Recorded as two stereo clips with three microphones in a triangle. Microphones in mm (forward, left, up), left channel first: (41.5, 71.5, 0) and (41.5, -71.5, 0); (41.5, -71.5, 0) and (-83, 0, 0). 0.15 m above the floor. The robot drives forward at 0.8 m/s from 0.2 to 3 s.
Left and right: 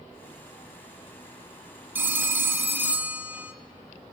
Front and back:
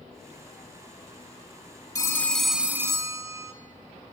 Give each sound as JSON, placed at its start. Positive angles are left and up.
{"t": 1.9, "sound": "a phone ringing", "azimuth_deg": -35, "distance_m": 0.9}